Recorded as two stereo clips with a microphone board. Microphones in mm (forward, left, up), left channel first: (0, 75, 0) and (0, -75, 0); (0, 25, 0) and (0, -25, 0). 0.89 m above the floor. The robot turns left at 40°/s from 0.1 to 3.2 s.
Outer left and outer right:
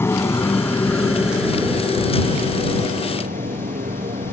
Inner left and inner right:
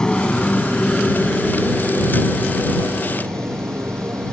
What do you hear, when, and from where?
0.0 s a motorcycle: 15° left (ahead or behind); by 4.3 s 60° right (ahead or behind)